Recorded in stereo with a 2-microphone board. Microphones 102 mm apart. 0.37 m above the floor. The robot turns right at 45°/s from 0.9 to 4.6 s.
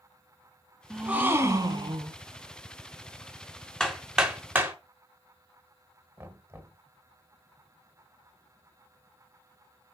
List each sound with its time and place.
0.9 s a gasp: 175° right, 1.1 m; by 2.2 s 120° right, 1.1 m
3.8 s hammering: 10° left (ahead or behind), 1.3 m; by 4.8 s 15° right (ahead or behind), 1.3 m
6.2 s knocking: 20° right (ahead or behind), 1.1 m